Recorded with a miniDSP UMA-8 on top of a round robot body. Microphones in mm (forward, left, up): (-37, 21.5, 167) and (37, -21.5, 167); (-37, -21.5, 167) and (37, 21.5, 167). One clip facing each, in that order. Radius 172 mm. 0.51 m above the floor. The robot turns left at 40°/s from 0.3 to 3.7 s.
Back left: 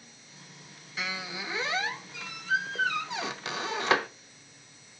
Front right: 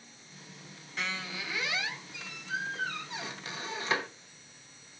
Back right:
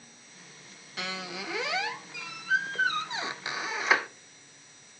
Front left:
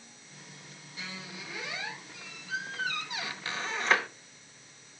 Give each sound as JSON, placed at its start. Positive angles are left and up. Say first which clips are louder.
{"t": 1.0, "sound": "a squeak", "louder": "back left 1 dB, back right 7 dB", "azimuth_deg": -125, "distance_m": 0.6}